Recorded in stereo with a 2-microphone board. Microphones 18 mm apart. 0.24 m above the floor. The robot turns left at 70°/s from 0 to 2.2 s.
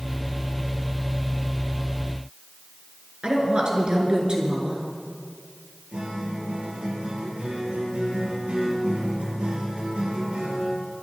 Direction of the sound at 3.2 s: 50° right (ahead or behind).